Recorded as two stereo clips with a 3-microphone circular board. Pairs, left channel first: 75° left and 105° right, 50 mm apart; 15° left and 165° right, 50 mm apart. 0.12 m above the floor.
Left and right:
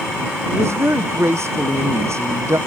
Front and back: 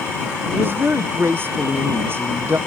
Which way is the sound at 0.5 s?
125° right.